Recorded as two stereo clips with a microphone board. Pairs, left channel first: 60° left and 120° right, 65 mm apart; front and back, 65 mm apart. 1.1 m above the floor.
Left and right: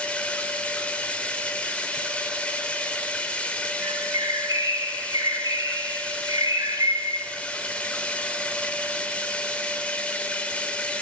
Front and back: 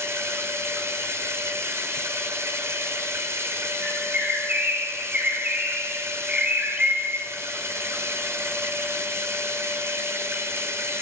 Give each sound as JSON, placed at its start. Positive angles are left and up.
{"t": 0.0, "sound": "running water", "azimuth_deg": 130, "distance_m": 3.5}
{"t": 3.8, "sound": "a bird", "azimuth_deg": -110, "distance_m": 6.5}